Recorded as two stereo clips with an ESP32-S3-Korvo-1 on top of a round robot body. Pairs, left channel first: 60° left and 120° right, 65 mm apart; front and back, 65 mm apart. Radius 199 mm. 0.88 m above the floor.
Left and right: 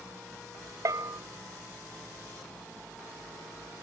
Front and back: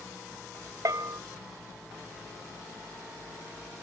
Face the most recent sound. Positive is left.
turn(degrees=-150)